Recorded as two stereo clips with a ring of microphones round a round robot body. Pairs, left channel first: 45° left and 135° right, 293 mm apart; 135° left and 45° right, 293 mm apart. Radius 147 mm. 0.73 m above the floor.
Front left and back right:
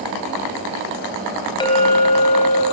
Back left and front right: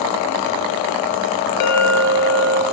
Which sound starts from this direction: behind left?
A clink, at 1.6 s.